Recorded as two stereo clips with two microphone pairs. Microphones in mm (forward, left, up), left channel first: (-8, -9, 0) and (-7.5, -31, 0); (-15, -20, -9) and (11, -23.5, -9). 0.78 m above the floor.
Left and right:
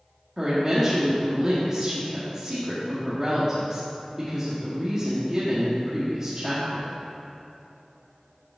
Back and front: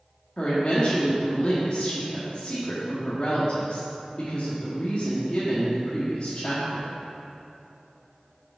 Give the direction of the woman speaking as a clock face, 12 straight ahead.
5 o'clock.